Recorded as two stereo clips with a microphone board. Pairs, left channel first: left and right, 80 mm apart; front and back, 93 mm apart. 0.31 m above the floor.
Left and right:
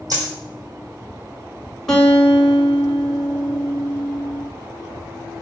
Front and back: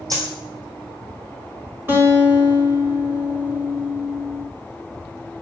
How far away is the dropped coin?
About 1.5 m.